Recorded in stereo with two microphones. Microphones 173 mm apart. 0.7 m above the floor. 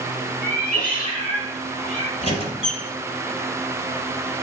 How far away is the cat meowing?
About 5.5 m.